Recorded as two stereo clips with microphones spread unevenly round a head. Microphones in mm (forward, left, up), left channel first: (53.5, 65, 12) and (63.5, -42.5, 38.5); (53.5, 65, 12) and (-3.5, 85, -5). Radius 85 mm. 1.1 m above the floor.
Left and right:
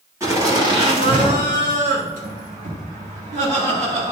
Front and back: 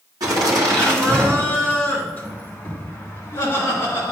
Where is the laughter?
160° right, 2 m; by 4.1 s 65° right, 3 m.